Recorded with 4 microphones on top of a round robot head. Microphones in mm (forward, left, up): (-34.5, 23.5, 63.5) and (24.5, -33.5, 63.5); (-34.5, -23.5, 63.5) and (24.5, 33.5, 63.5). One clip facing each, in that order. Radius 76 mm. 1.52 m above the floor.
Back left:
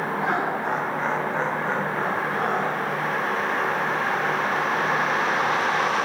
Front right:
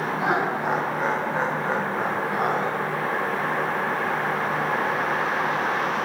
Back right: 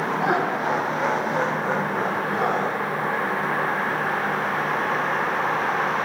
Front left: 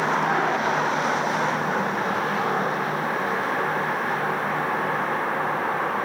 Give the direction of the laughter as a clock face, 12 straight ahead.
4 o'clock.